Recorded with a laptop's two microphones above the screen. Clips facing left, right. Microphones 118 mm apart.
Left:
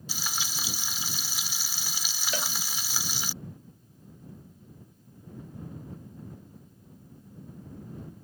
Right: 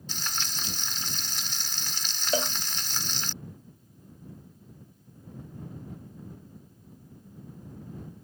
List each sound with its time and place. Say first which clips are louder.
0.1 s frying: even; 10° left (ahead or behind)
2.3 s a cowbell: right 7 dB; 35° right (ahead or behind)